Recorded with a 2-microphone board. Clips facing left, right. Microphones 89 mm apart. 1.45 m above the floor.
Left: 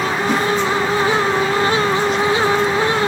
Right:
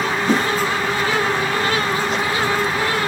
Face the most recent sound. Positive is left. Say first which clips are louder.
# right 1 dB
turn(degrees=-30)  # may be behind; listen again after turning